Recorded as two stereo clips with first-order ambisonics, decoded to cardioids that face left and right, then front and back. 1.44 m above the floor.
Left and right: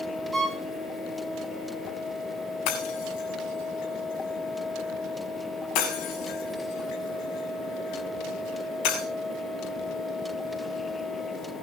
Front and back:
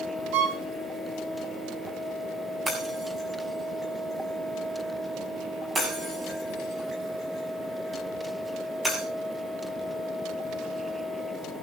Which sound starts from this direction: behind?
A violin, at 0.3 s.